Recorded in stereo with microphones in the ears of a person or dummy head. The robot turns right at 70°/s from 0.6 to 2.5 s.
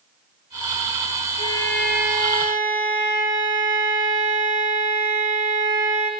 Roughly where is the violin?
Behind left.